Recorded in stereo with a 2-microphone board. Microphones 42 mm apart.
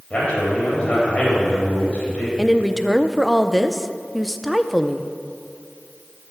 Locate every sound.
0.1 s a man speaking: 25° left (ahead or behind), 4.5 m
2.4 s a woman speaking: centre (ahead or behind), 0.5 m